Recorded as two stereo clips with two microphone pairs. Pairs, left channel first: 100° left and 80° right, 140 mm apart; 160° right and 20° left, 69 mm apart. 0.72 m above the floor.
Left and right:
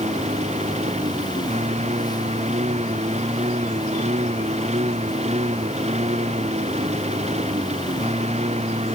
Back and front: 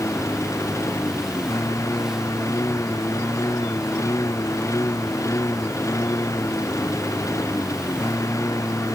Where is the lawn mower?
120° right.